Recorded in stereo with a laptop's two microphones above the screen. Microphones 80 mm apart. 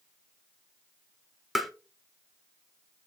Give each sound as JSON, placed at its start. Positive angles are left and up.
{"t": 1.6, "sound": "tapping", "side_deg": 0, "distance_m": 0.8}